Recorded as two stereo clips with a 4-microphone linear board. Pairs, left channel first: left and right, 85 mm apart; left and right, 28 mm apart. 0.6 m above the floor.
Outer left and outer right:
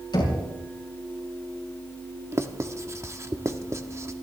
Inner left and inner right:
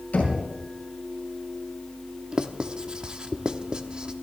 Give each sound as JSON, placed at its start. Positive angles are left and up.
{"t": 0.1, "sound": "knocking", "side_deg": 60, "distance_m": 7.0}
{"t": 2.3, "sound": "writing", "side_deg": -35, "distance_m": 0.9}